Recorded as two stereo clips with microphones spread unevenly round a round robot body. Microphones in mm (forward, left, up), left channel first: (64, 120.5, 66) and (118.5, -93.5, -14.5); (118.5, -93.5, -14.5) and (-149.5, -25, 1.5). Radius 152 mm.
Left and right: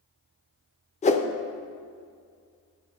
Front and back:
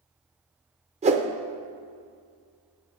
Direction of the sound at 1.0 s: 175° left.